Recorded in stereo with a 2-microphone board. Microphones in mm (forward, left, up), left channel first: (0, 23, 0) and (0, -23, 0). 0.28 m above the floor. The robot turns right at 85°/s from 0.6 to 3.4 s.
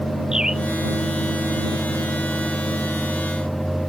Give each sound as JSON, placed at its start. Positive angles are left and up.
{"t": 0.3, "sound": "a bird", "side_deg": -10}